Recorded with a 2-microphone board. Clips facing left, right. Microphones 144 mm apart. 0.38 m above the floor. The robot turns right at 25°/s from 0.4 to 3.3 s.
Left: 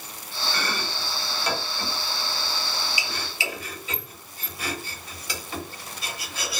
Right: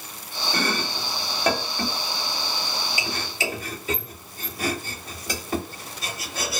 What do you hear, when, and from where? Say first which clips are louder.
0.5 s chopping: right 5 dB; 45° right (ahead or behind), 0.7 m